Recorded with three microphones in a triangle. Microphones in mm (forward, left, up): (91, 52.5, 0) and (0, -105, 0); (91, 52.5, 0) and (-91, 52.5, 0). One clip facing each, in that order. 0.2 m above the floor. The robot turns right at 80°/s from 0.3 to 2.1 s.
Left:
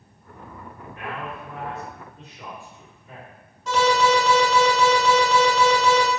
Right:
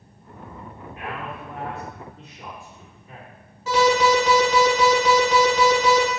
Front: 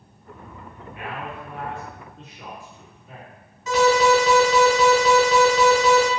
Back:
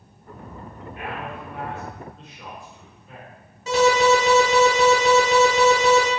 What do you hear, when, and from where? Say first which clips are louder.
0.9 s a man speaking: even, back 1 dB; 170° right, 1.7 m; by 3.3 s 75° right, 1.7 m
3.7 s an alarm: right 2 dB, even; 165° left, 1.1 m